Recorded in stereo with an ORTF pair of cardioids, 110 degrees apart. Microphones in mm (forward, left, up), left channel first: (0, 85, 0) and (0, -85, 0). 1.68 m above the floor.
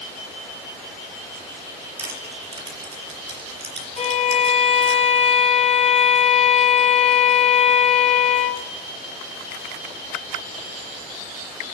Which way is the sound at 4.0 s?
35° left.